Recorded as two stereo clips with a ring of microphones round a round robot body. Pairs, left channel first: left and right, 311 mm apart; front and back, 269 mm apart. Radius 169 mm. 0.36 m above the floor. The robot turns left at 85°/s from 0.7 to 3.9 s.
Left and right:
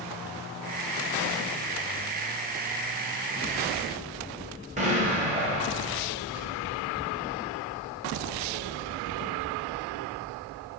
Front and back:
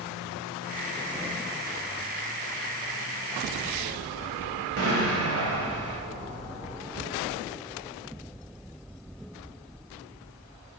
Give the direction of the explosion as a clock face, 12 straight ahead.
5 o'clock.